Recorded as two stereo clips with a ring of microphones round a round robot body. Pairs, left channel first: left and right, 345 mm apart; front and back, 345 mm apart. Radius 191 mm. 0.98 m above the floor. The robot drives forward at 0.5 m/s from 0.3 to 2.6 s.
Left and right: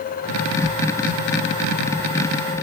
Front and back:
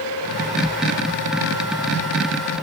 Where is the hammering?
No hammering in this recording.